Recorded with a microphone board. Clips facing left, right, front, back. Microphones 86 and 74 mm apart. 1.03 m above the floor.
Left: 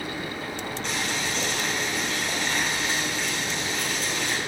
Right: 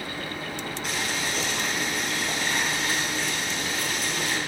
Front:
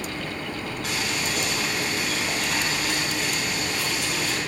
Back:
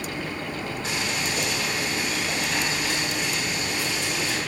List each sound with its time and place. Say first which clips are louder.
0.8 s boiling: even, front 1 dB; 5° right, 5.5 m